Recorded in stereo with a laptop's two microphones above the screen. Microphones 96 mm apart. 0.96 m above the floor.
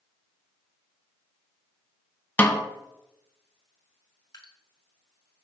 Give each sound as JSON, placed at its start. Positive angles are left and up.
{"t": 2.4, "sound": "a snare drum", "side_deg": 15, "distance_m": 0.8}
{"t": 4.3, "sound": "dripping", "side_deg": 45, "distance_m": 1.9}